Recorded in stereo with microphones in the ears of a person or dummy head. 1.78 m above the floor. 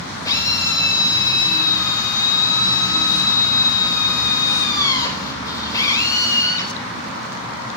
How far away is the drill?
About 4.5 m.